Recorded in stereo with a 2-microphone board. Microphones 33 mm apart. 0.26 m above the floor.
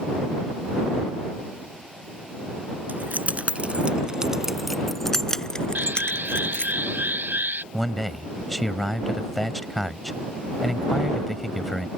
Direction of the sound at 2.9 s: 60° right (ahead or behind).